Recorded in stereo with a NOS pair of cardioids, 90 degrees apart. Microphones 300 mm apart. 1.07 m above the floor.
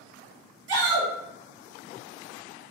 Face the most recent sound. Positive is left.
turn(degrees=-55)